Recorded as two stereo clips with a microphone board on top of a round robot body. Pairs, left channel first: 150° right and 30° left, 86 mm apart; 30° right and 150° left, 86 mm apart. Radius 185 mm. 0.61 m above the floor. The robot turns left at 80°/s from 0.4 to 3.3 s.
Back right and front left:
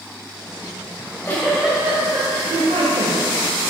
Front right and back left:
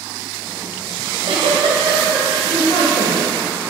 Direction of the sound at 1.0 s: 165° left.